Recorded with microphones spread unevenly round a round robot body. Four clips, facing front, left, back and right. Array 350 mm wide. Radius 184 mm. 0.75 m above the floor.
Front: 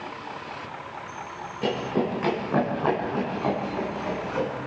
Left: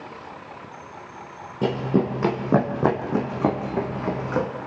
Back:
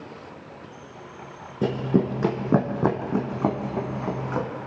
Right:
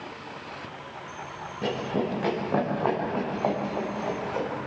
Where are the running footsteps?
150° left, 3 m; by 4.5 s 115° left, 2.5 m.